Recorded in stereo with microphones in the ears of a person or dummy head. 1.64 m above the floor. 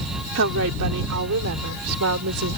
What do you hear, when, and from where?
0.3 s a woman speaking: 70° right (ahead or behind); by 2.6 s 80° right